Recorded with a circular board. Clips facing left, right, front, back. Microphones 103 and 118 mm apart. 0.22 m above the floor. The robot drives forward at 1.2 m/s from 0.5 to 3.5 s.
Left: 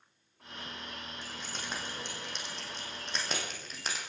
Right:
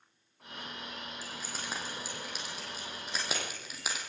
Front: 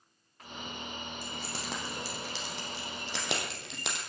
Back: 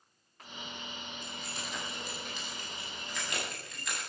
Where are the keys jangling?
5° right, 7.5 m; by 4.0 s 10° right, 5 m.